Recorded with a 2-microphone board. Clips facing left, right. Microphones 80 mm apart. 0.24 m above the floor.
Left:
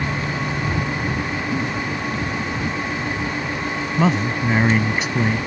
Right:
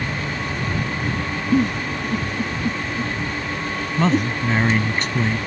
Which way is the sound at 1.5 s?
65° right (ahead or behind).